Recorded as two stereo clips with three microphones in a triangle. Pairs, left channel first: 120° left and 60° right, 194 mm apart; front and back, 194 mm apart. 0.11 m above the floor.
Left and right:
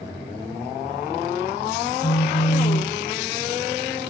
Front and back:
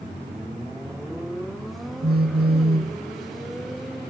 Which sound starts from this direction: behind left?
A phone buzzing, at 2.0 s.